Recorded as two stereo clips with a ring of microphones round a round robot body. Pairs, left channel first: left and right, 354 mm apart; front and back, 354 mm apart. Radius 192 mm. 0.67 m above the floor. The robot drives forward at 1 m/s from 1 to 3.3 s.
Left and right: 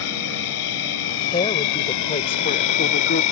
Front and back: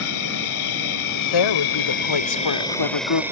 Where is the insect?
45° left; by 3.3 s 95° left.